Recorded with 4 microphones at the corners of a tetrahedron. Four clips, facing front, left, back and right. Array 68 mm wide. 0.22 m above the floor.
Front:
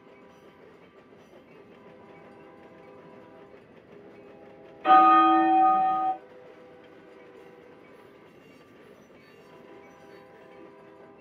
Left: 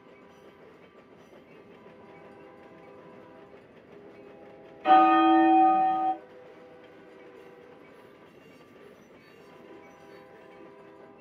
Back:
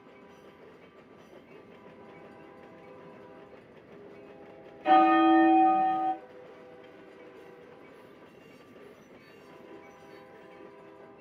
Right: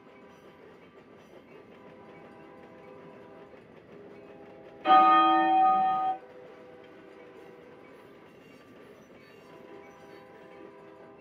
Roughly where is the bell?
Ahead.